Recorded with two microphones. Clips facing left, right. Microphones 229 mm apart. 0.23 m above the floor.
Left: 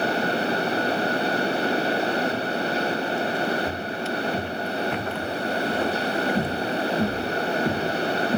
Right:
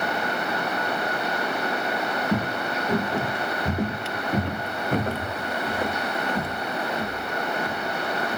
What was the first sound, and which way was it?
Footsteps, 80° right.